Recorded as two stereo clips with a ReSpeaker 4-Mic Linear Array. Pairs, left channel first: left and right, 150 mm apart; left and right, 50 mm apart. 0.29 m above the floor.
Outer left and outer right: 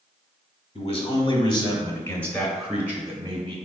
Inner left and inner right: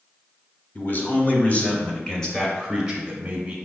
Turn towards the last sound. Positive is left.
turn(degrees=-30)  # may be behind; listen again after turning